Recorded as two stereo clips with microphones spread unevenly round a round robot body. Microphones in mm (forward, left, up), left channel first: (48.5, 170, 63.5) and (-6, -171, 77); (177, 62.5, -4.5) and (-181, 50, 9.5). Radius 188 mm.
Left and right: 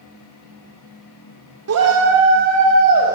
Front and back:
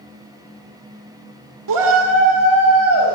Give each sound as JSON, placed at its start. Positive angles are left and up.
{"t": 1.7, "sound": "a shout", "azimuth_deg": -145, "distance_m": 2.0}